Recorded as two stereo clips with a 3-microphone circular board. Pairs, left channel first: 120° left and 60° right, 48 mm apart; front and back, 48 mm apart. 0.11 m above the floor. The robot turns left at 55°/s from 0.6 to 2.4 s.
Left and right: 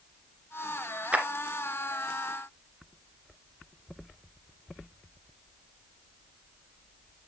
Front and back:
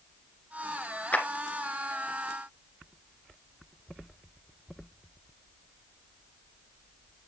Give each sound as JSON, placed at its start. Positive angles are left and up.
{"t": 1.1, "sound": "a clap", "azimuth_deg": -15, "distance_m": 1.4}